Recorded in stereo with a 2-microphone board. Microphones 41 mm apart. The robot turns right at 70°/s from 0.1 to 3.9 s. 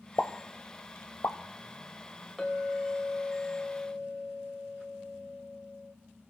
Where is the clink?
15° left, 2 m; by 5.9 s 125° left, 2 m.